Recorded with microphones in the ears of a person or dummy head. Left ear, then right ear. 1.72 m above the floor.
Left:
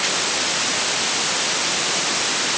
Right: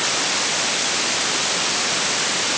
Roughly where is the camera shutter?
No camera shutter in this recording.